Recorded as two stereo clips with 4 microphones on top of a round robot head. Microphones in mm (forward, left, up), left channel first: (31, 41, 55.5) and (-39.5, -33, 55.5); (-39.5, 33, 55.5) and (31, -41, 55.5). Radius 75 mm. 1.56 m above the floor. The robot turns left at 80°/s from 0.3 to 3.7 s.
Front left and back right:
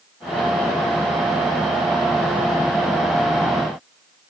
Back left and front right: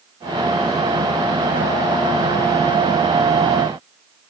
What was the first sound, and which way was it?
Only background noise.